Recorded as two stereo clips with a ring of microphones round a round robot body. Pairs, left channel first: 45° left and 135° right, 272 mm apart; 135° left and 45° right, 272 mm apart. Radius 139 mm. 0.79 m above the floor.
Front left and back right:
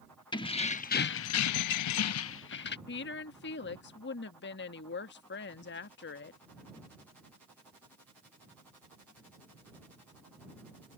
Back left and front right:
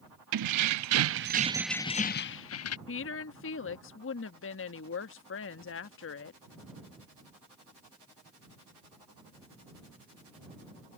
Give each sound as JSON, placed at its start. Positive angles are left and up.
{"t": 0.3, "sound": "keys jangling", "azimuth_deg": -30}
{"t": 2.9, "sound": "a woman speaking", "azimuth_deg": 95}